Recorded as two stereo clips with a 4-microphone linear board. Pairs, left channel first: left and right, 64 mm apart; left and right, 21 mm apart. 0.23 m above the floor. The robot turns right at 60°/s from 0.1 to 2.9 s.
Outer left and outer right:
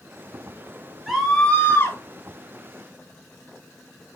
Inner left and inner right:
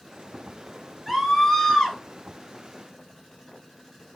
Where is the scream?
5° right, 3.5 m; by 2.0 s 50° left, 3.5 m.